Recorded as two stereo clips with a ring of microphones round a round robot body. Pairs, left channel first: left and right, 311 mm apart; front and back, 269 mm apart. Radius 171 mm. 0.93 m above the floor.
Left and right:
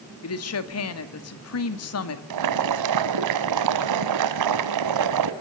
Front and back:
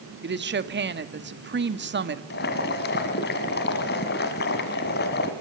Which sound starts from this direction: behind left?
A woman speaking, at 0.2 s.